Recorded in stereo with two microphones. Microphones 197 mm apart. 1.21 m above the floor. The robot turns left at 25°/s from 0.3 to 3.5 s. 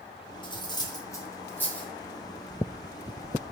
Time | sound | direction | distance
0.4 | cutlery clinking | 25° left (ahead or behind) | 0.6 m